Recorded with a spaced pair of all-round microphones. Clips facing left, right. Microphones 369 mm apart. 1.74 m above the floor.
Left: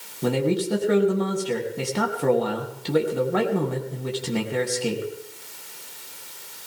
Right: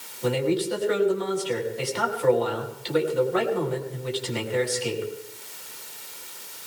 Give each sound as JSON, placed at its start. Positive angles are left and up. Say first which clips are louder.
{"t": 0.2, "sound": "a man speaking", "louder": "left 1 dB", "side_deg": 60, "distance_m": 3.5}